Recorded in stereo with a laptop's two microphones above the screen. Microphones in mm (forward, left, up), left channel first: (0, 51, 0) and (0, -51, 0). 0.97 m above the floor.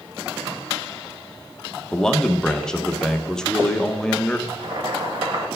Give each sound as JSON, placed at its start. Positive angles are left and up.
{"t": 1.9, "sound": "a man speaking", "side_deg": 5, "distance_m": 0.6}
{"t": 4.5, "sound": "boiling", "side_deg": -55, "distance_m": 1.4}